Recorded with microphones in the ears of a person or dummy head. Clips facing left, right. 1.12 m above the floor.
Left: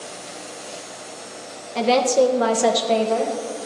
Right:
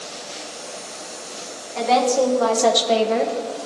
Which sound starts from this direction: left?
A woman speaking, at 1.8 s.